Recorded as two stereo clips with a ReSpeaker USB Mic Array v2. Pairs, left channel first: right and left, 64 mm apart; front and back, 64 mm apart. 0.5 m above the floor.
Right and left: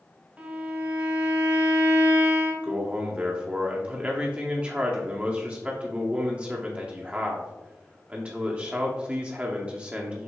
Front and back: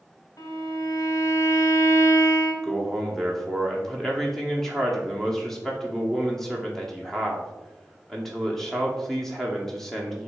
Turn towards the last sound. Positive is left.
turn(degrees=75)